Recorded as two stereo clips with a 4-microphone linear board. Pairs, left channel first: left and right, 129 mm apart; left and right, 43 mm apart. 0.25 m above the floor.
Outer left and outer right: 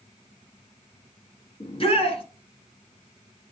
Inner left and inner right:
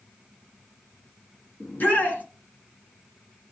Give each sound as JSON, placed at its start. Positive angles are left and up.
{"t": 1.6, "sound": "a shout", "side_deg": 50, "distance_m": 3.0}